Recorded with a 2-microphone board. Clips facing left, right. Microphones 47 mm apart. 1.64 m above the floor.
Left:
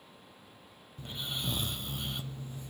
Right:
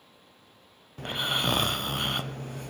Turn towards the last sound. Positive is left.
turn(degrees=-60)  # may be behind; listen again after turning